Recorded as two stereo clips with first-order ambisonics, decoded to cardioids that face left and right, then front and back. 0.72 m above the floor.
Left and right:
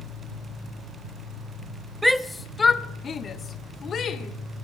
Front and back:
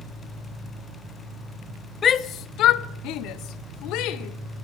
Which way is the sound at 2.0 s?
5° right.